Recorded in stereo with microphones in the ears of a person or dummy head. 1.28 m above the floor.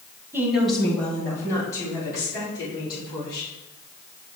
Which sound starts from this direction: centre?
A woman speaking, at 0.3 s.